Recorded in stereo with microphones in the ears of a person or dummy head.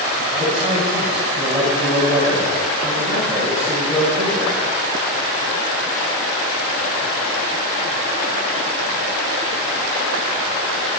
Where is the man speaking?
Centre (ahead or behind), 5 m.